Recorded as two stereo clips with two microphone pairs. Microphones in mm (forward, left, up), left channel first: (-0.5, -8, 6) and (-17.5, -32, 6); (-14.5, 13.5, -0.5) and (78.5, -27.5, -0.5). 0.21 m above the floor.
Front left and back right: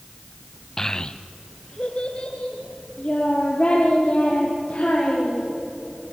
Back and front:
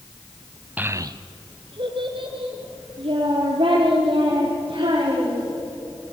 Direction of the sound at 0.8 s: 5° right.